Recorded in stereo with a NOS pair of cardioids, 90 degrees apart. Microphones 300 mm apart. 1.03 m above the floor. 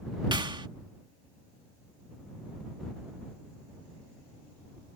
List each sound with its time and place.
0.3 s a clap: 15° right